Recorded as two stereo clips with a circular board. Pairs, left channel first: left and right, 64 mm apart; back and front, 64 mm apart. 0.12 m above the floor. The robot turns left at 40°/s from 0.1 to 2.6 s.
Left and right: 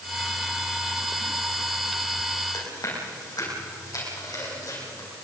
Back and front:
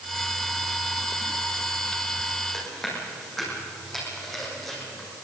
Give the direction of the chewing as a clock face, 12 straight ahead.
9 o'clock.